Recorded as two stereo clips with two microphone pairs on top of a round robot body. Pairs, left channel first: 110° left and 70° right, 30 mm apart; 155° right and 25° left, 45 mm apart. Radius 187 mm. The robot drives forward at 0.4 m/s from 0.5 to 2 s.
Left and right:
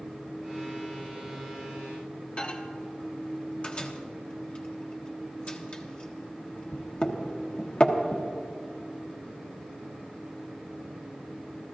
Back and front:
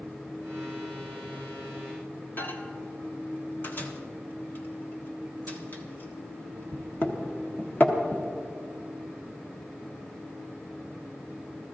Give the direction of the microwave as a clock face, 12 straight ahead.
7 o'clock.